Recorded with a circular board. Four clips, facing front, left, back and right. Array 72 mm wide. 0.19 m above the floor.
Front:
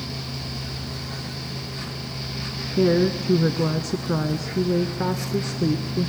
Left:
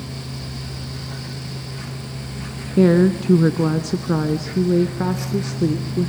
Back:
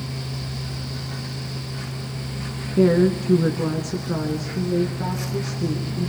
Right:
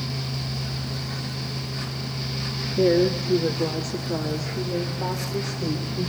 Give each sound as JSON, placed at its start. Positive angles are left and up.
{"t": 2.8, "sound": "a woman speaking", "azimuth_deg": 95, "distance_m": 1.7}